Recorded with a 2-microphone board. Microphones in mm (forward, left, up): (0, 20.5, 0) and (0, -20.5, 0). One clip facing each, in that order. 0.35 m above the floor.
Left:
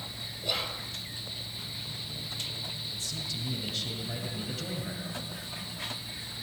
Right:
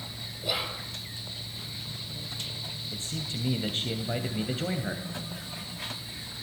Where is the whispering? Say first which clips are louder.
Right 2 dB; 10° right (ahead or behind), 1.7 m.